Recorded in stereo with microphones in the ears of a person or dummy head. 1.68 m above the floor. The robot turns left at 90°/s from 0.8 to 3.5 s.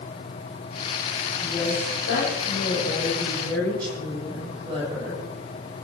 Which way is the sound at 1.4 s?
165° left.